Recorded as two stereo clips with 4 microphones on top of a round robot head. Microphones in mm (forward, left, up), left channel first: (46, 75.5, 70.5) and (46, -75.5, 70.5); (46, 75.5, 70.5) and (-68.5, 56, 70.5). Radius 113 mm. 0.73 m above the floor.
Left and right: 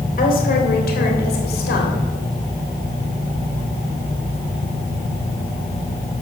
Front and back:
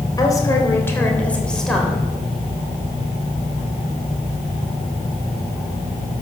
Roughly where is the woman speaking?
Ahead left.